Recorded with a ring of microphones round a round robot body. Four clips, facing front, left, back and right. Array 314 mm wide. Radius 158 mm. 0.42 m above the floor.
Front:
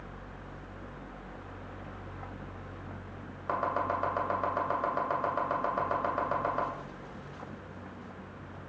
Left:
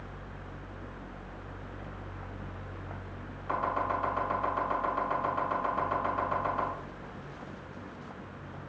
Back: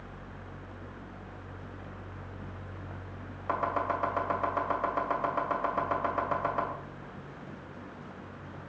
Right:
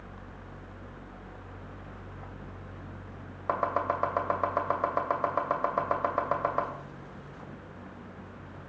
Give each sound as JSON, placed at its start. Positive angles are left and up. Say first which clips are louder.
{"t": 3.5, "sound": "chopping", "louder": "right 2 dB, even", "azimuth_deg": -95, "distance_m": 2.0}